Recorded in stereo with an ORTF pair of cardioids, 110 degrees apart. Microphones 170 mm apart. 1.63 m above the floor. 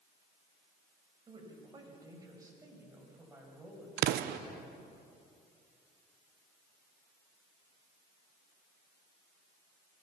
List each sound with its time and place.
1.3 s a woman speaking: 30° right, 8 m; by 5.0 s straight ahead, 9 m
4.0 s an explosion: 70° right, 1.0 m